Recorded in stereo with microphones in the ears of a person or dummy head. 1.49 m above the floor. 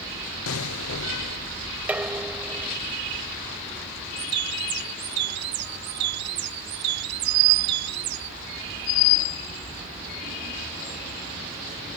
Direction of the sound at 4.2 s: 60° right (ahead or behind).